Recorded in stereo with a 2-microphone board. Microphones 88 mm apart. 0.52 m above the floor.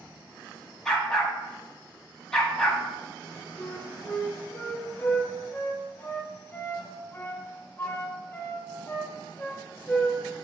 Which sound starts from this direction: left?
A flute, at 3.6 s.